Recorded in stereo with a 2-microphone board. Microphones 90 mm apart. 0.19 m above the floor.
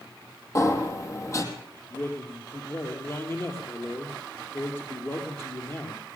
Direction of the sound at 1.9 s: 30° left (ahead or behind).